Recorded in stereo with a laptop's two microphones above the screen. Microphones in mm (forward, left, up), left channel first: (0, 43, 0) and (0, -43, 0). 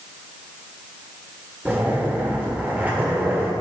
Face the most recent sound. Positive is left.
turn(degrees=-20)  # may be behind; listen again after turning